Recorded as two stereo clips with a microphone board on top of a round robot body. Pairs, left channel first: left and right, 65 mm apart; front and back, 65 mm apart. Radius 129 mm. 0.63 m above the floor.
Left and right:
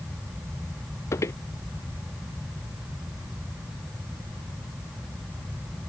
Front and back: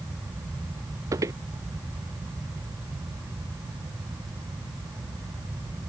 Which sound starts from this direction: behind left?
Footsteps, at 1.1 s.